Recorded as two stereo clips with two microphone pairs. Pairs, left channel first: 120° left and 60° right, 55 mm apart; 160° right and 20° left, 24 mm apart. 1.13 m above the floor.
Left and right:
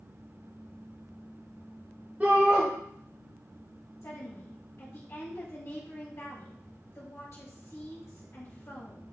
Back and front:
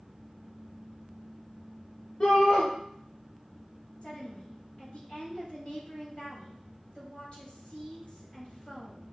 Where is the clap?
No clap in this recording.